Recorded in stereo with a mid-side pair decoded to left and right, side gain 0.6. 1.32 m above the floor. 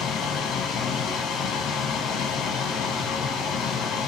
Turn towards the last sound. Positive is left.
turn(degrees=65)